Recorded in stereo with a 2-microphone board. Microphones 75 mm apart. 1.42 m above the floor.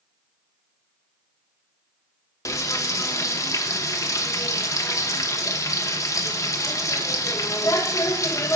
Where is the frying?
45° left (ahead or behind), 0.9 m.